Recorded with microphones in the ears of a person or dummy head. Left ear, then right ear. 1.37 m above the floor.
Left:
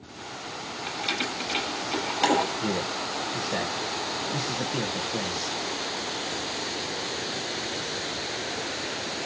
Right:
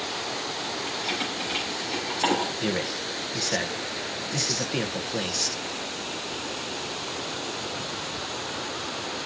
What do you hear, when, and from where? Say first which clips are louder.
0.9 s keys jangling: left 3 dB; 15° left (ahead or behind), 6 m
2.6 s a man speaking: right 1 dB; 35° right (ahead or behind), 1.4 m